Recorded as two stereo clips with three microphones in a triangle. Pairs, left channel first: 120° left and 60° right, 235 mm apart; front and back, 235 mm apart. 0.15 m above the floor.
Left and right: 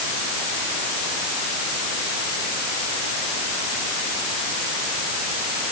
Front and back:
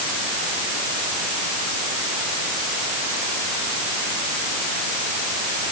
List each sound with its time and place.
Only background noise.